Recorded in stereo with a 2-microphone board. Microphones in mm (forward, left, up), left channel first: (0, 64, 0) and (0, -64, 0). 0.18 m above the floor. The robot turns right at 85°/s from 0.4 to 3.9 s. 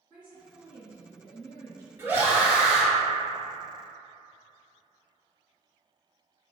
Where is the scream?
20° right (ahead or behind), 1.0 m; by 2.9 s centre (ahead or behind), 1.0 m.